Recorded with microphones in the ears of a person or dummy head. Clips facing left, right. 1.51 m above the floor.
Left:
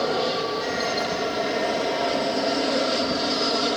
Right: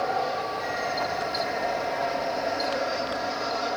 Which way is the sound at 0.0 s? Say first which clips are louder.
Left 4 dB; 50° left (ahead or behind).